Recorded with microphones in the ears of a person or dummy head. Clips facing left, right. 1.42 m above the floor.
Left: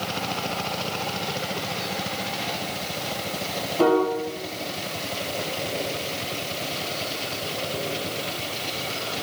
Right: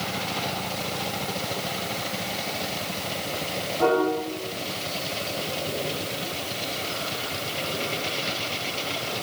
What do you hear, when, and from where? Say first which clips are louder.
3.8 s a piano: left 2 dB; 75° left (ahead or behind), 4 m